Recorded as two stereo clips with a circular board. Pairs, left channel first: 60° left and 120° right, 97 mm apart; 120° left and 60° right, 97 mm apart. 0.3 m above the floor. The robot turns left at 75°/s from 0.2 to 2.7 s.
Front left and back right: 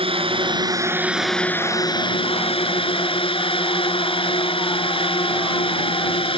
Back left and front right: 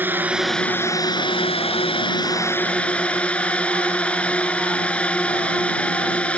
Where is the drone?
130° right; by 6.4 s 40° left.